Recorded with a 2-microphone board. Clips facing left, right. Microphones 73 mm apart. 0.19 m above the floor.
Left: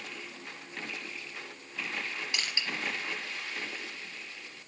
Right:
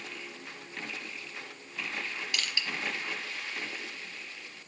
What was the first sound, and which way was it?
Crushing, 25° left (ahead or behind).